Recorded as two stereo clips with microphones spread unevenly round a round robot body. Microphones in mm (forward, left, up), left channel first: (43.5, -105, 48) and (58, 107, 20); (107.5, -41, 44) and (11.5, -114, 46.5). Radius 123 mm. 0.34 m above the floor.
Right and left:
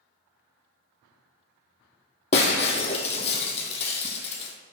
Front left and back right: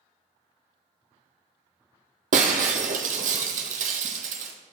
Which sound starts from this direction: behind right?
Breaking glass, at 2.3 s.